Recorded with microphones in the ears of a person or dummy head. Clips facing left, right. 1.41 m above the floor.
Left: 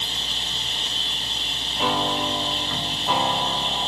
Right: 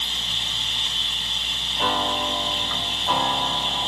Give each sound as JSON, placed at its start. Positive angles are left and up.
{"t": 0.0, "sound": "an insect", "side_deg": 30, "distance_m": 0.8}
{"t": 1.8, "sound": "a piano", "side_deg": 0, "distance_m": 0.7}